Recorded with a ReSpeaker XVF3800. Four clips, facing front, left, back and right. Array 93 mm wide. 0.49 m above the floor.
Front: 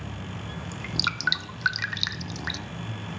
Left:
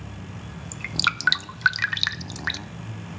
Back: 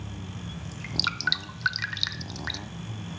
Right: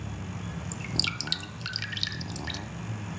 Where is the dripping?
90° left, 0.5 m.